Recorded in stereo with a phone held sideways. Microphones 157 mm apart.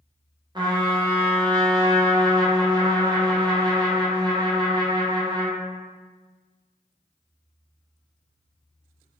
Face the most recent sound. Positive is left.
turn(degrees=-30)  # may be behind; listen again after turning